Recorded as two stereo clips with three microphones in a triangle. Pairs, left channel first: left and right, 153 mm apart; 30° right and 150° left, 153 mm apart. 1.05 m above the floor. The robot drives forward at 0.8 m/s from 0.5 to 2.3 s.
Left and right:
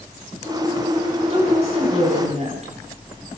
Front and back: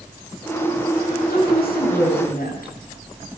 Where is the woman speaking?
40° right, 9.5 m; by 2.7 s 45° right, 9 m.